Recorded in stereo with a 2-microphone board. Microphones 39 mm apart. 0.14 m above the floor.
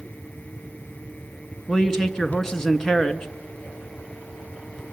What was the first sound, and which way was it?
A man speaking, 15° left (ahead or behind).